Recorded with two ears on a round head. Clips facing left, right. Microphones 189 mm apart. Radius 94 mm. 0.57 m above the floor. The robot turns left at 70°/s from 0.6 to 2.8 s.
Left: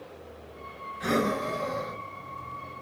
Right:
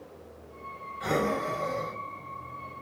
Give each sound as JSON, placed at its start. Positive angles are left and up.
{"t": 1.0, "sound": "breathing", "azimuth_deg": 25, "distance_m": 2.5}